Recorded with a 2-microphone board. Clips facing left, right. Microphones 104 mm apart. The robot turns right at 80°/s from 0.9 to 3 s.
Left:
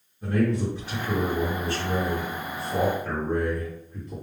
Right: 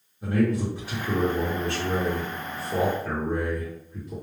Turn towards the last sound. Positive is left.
turn(degrees=0)